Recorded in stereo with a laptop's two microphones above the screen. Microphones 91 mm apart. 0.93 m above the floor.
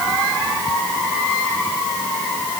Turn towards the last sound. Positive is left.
No sound to turn to.